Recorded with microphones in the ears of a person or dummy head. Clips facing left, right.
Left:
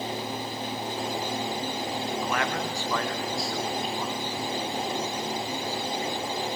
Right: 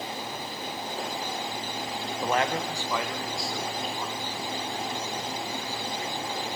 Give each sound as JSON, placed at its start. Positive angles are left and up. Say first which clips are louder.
{"t": 2.2, "sound": "a man speaking", "louder": "right 6 dB", "side_deg": -25, "distance_m": 1.0}